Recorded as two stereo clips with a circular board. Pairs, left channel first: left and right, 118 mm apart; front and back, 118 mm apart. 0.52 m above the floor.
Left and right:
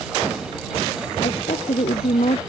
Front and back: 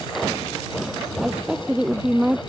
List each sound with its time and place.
1.2 s a woman speaking: 100° left